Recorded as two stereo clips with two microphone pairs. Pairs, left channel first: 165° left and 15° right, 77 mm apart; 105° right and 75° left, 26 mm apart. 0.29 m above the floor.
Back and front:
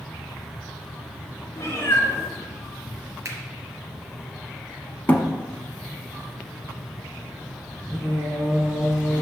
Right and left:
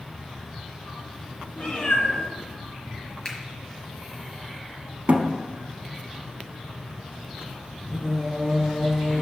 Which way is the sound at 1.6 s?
145° right.